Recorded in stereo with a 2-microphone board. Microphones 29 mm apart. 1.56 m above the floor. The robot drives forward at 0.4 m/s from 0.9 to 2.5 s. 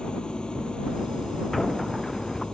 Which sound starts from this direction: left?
An engine running, at 0.0 s.